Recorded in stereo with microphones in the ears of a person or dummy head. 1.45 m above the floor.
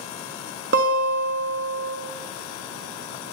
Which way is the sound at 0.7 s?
60° right (ahead or behind).